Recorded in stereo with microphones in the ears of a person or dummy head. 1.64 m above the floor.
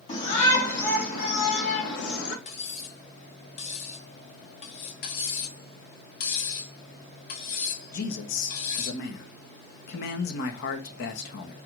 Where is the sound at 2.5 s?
45° left (ahead or behind), 1.7 m.